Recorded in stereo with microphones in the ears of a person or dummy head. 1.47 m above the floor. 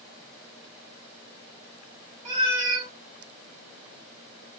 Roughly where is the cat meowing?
Centre.